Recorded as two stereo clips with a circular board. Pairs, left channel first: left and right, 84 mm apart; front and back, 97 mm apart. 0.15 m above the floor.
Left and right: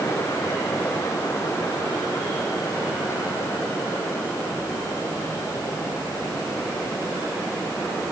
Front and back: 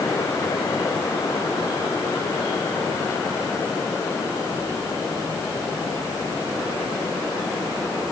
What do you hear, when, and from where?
Only background noise.